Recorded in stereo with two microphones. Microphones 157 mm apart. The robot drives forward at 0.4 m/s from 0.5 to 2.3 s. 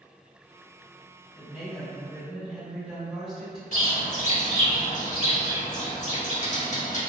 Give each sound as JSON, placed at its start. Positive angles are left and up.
{"t": 1.4, "sound": "a woman speaking", "side_deg": -5, "distance_m": 1.2}
{"t": 3.7, "sound": "a bird", "side_deg": 50, "distance_m": 0.6}